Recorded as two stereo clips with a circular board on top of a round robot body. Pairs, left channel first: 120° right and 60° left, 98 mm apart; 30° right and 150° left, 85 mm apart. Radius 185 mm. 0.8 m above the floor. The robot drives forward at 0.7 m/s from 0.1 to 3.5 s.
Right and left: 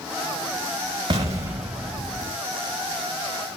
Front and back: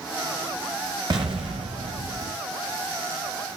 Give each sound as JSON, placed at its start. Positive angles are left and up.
{"t": 1.1, "sound": "an explosion", "azimuth_deg": 105, "distance_m": 0.8}